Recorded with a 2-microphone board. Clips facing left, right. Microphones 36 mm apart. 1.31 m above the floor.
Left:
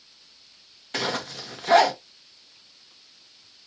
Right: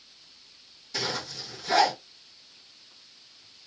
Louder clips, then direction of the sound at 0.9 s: Left 4 dB; 50° left (ahead or behind).